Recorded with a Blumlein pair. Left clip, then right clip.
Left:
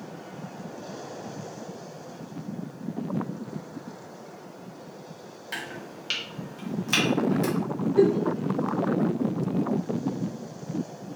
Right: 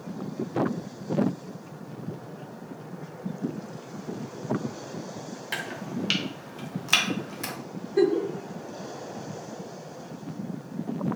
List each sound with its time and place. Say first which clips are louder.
5.5 s chopping: right 3 dB; 15° right, 0.7 m
8.0 s a giggle: left 1 dB; 15° right, 0.6 m